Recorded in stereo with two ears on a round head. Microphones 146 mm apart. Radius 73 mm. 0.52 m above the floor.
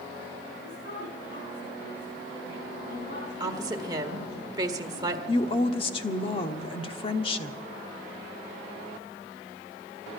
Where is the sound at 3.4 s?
25° right (ahead or behind), 1.6 m.